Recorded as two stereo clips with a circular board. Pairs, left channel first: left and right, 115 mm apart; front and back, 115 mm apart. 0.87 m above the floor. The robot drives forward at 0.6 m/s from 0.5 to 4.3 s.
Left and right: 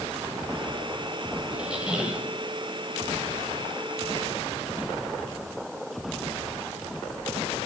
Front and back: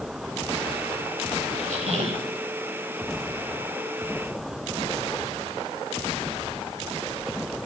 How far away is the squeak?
About 1.2 m.